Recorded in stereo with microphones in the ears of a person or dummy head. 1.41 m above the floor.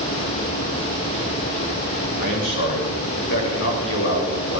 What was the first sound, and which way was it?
A man speaking, 65° left (ahead or behind).